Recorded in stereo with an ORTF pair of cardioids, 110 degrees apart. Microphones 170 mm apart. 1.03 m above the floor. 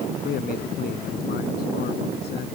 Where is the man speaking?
60° left; by 2.5 s 70° left.